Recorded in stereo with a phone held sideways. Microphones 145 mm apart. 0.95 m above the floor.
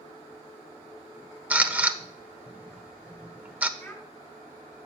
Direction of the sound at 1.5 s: 10° right (ahead or behind).